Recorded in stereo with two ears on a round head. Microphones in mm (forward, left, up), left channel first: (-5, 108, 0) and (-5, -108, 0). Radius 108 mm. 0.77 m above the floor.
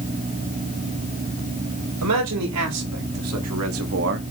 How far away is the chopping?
No chopping in this recording.